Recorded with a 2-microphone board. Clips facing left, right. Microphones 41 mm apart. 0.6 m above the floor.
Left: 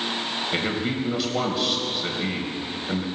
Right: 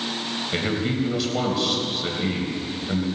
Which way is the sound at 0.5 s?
5° left (ahead or behind).